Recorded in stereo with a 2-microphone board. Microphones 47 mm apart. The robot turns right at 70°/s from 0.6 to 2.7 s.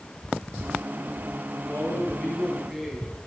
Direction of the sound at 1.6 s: 100° left.